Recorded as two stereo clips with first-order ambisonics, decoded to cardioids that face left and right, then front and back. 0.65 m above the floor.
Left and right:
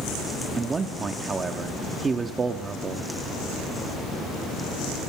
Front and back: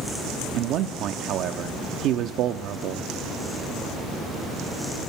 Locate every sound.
0.5 s a man speaking: 155° right, 0.7 m